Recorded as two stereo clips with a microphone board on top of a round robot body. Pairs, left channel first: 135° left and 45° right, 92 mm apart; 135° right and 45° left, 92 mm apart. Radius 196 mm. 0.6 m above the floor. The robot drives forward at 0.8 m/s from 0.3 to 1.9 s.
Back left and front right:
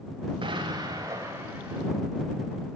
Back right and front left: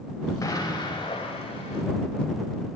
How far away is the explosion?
About 1.4 m.